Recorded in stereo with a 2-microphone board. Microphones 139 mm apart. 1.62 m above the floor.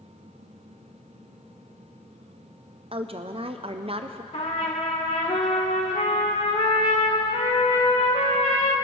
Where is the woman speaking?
45° right (ahead or behind), 0.5 m.